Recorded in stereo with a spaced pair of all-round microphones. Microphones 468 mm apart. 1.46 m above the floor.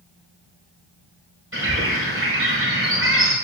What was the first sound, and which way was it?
A bird, 30° right (ahead or behind).